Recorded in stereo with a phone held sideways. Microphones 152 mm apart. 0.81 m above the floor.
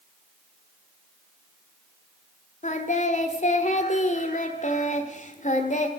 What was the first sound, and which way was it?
Singing, 55° left (ahead or behind).